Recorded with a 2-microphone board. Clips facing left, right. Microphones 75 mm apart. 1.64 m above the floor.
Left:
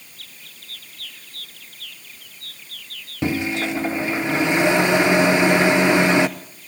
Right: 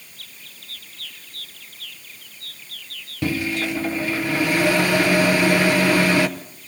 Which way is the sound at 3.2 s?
20° left (ahead or behind).